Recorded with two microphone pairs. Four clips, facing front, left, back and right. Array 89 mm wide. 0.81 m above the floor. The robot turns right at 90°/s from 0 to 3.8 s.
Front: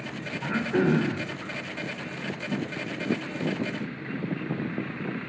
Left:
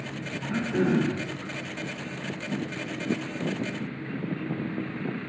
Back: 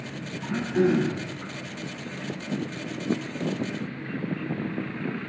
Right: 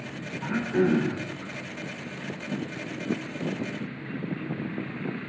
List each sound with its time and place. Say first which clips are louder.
0.4 s throat clearing: right 2 dB, back 1 dB; 30° right, 3 m; by 1.2 s 45° left, 3 m